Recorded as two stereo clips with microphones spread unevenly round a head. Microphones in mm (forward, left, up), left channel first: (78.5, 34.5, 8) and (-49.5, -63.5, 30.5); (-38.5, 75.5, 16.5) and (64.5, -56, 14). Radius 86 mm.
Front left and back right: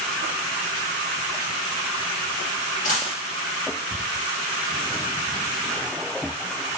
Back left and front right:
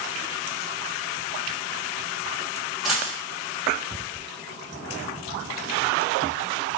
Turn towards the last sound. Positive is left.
turn(degrees=40)